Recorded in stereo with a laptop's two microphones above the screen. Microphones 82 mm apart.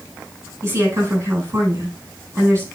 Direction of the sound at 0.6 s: 30° right (ahead or behind).